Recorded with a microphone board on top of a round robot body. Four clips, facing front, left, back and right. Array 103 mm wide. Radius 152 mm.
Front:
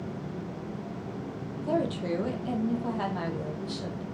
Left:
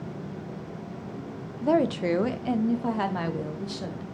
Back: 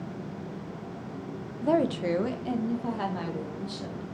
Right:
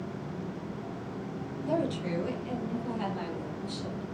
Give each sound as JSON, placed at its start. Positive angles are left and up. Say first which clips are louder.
{"t": 1.6, "sound": "a woman speaking", "louder": "left 8 dB, back 4 dB", "azimuth_deg": 125, "distance_m": 0.9}